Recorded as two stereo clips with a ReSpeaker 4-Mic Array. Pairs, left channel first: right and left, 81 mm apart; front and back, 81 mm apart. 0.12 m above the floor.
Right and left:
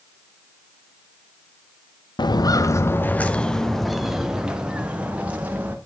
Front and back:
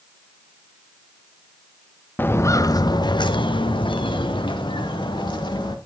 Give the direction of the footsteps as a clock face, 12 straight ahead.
2 o'clock.